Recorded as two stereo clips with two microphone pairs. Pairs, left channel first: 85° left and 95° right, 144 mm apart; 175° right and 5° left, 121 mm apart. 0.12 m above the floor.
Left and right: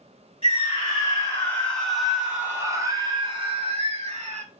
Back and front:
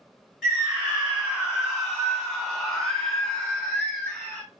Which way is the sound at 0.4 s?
90° left.